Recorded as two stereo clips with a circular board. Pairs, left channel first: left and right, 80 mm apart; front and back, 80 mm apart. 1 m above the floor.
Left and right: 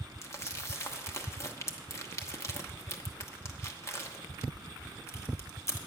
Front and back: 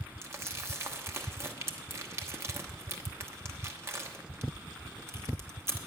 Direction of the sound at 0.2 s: 135° left.